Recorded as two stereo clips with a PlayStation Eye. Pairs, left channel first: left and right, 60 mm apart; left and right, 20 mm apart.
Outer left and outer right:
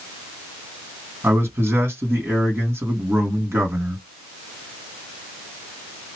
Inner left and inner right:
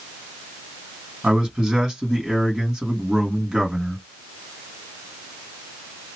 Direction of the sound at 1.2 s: 40° right (ahead or behind).